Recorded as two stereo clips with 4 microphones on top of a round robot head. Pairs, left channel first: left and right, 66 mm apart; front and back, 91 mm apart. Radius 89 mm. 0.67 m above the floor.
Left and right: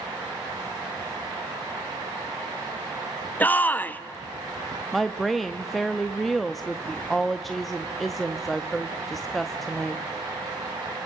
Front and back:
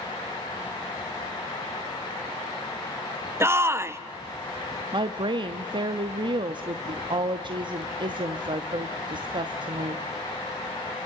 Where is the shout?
135° left, 1.1 m.